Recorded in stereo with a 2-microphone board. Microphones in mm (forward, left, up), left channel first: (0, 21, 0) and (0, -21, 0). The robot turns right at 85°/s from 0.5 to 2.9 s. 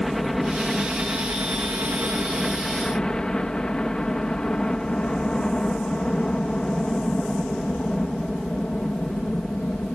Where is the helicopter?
175° left; by 9.9 s 20° left.